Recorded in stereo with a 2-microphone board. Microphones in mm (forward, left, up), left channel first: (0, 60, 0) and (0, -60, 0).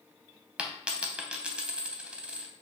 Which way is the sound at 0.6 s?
10° right (ahead or behind).